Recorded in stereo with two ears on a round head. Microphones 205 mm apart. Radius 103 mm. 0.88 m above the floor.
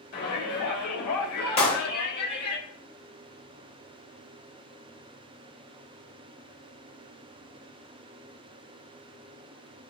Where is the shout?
50° left (ahead or behind), 5 m.